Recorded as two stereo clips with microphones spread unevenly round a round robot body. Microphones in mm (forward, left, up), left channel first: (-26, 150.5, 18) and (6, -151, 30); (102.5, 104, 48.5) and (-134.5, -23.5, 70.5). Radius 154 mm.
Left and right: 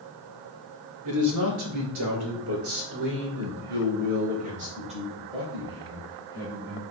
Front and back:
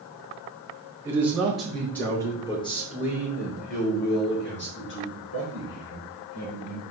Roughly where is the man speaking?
Right.